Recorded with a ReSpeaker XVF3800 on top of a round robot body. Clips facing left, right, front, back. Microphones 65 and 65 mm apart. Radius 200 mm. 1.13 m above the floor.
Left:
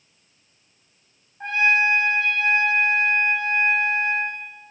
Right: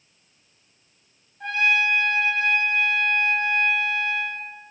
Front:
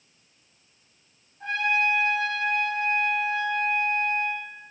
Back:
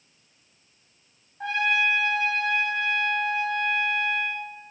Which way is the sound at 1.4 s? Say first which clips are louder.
Left 2 dB, back 1 dB; 155° left.